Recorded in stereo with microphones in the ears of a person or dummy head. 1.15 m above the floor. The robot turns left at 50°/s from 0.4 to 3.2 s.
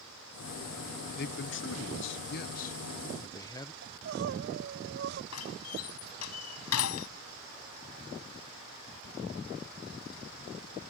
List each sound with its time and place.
1.2 s a man speaking: 125° left; by 3.7 s 25° left
3.8 s crying: 60° right (ahead or behind)
5.3 s a door slam: 90° left